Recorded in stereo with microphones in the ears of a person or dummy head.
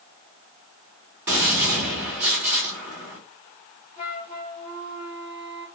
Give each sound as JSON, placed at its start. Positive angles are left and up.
{"t": 1.3, "sound": "a gunshot", "side_deg": -10, "distance_m": 1.6}
{"t": 4.0, "sound": "a flute", "side_deg": 45, "distance_m": 1.8}